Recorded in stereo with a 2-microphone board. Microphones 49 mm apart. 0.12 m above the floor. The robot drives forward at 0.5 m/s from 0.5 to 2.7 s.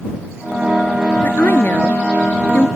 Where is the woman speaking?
45° left (ahead or behind).